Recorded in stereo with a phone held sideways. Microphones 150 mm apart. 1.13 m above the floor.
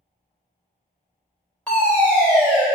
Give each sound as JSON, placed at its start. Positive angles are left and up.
{"t": 1.7, "sound": "a fire alarm", "side_deg": 10, "distance_m": 1.2}